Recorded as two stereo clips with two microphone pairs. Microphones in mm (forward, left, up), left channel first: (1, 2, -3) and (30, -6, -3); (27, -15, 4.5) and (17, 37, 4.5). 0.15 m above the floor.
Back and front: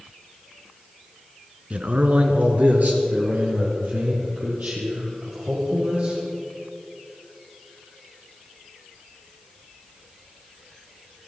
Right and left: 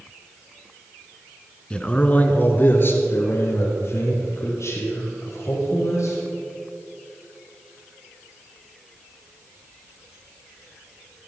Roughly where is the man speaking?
Ahead.